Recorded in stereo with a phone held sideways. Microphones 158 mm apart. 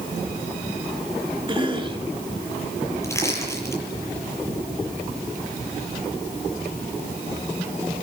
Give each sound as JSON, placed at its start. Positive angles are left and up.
{"t": 1.5, "sound": "a cough", "side_deg": -30, "distance_m": 4.0}
{"t": 3.0, "sound": "crushing", "side_deg": 15, "distance_m": 8.5}